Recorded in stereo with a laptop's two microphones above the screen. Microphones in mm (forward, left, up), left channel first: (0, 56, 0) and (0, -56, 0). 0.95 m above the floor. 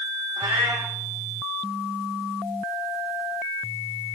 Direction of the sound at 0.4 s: 70° right (ahead or behind).